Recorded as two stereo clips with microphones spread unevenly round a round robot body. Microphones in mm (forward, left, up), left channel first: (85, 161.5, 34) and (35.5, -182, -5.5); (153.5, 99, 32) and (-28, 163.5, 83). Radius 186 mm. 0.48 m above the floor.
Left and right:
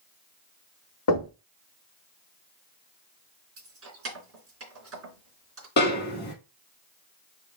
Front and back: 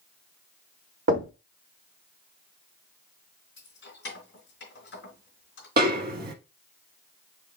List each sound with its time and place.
1.1 s knocking: 140° left, 1.2 m
3.6 s keys jangling: 50° right, 3.5 m
5.8 s a snare drum: 140° left, 0.6 m